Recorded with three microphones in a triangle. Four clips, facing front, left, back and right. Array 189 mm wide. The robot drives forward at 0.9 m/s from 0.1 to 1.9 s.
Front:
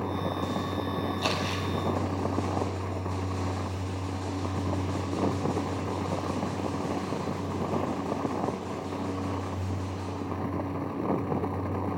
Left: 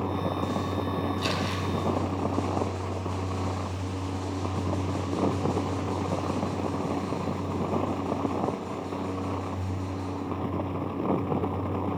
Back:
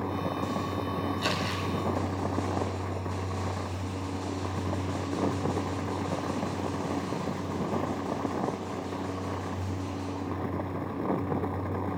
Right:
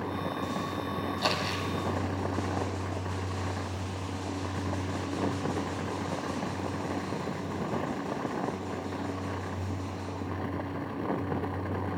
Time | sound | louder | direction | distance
1.2 | crumpling | left 1 dB, front 1 dB | 65° right | 5.5 m